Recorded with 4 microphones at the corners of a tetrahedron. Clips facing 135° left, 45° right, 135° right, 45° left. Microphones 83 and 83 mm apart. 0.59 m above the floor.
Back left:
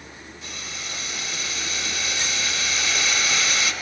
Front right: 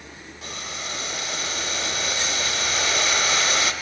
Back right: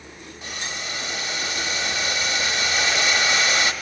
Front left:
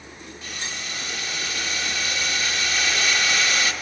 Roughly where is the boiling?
Right.